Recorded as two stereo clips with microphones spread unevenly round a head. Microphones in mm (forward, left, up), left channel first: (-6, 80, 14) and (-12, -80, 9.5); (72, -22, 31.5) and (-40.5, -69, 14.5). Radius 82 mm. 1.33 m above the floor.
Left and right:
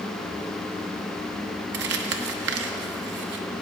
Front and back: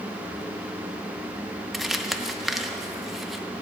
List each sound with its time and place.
1.7 s crumpling: 70° right, 0.8 m